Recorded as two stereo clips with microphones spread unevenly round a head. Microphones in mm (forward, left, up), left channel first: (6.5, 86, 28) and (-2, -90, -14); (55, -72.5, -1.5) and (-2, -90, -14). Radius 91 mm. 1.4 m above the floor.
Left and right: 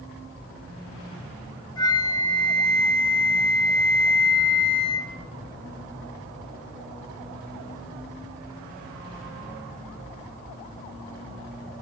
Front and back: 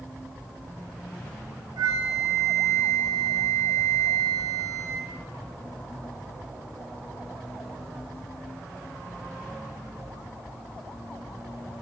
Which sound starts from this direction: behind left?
A flute, at 1.8 s.